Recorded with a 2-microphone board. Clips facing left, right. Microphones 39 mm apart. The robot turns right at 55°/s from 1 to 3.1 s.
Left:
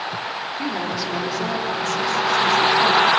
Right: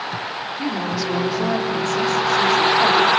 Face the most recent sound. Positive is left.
turn(degrees=-75)